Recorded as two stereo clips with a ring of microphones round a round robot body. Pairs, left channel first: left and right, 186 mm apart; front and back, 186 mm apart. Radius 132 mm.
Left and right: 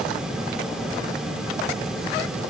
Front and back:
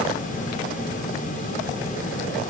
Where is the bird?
I don't hear a bird.